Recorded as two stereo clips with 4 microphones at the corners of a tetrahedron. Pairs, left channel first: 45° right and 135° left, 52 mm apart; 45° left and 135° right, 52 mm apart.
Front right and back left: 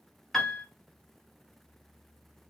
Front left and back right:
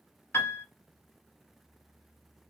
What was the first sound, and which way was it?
A piano, 35° left.